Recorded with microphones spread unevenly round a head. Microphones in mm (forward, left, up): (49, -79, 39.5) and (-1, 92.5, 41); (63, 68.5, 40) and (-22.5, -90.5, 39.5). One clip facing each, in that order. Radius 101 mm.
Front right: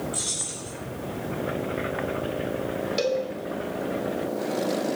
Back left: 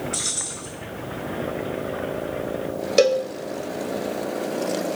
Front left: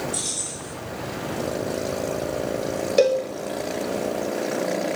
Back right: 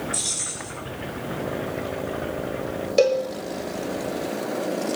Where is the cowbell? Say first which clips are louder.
Back left 9 dB, even; 145° left, 0.9 m.